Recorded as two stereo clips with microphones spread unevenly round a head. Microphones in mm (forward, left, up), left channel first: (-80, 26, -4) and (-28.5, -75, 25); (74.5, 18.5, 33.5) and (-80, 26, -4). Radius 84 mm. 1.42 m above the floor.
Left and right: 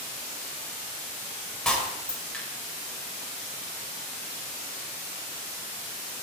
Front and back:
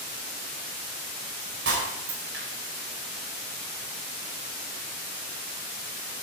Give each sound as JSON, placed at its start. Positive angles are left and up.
{"t": 1.6, "sound": "breaking glass", "azimuth_deg": -155, "distance_m": 4.0}